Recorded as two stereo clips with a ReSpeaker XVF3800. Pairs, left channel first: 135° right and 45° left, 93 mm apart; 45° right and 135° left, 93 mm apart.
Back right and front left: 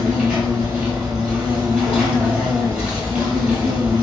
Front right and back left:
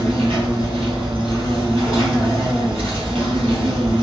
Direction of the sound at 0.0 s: 120° left.